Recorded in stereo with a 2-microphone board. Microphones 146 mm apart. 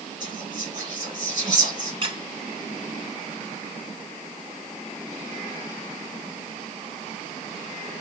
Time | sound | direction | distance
0.2 | whispering | 55° right (ahead or behind) | 2 m
2.0 | a squeak | 40° right (ahead or behind) | 0.8 m